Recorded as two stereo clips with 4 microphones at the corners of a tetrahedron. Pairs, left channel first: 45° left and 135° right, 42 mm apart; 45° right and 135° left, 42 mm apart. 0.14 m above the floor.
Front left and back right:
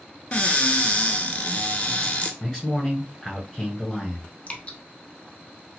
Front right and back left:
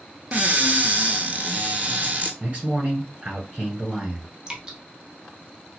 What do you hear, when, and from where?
0.3 s a cupboard door: 95° left, 0.6 m
2.4 s a man speaking: 110° left, 1.5 m
4.5 s dripping: 80° left, 0.7 m